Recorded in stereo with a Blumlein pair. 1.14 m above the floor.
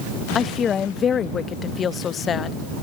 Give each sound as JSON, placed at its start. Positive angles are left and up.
{"t": 0.3, "sound": "a woman speaking", "azimuth_deg": 20}